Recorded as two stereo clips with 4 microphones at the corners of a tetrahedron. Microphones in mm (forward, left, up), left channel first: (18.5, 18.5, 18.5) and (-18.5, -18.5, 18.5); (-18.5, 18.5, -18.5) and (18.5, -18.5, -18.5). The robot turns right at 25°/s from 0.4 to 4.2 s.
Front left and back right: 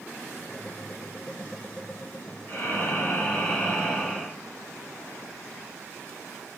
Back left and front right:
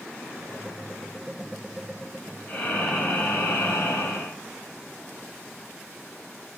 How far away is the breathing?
About 1.8 m.